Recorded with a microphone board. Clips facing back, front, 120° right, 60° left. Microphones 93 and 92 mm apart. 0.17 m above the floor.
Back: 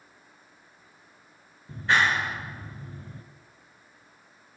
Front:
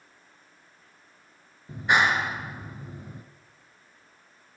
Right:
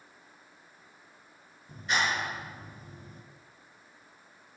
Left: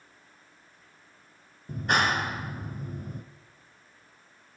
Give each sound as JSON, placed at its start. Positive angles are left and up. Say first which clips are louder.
{"t": 1.7, "sound": "a clap", "louder": "front 1 dB, left 4 dB", "azimuth_deg": 70, "distance_m": 2.0}